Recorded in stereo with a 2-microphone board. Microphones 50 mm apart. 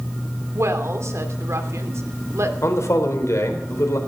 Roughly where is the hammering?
No hammering in this recording.